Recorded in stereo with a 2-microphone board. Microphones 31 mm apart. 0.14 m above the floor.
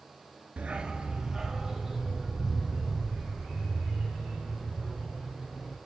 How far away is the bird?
No bird in this recording.